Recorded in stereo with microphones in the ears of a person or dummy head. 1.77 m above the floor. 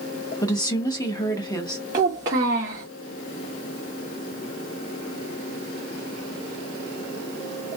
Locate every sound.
0.4 s a woman speaking: 20° left (ahead or behind), 0.7 m
1.9 s a child speaking: 15° right (ahead or behind), 0.8 m